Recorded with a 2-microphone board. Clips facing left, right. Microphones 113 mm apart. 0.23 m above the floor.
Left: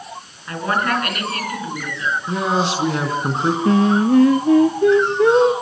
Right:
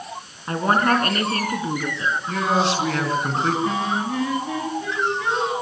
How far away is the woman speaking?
About 3 m.